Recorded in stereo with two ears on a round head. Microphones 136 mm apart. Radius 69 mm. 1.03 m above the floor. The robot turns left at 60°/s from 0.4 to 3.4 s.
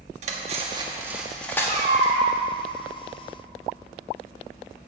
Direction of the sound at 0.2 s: 55° right (ahead or behind).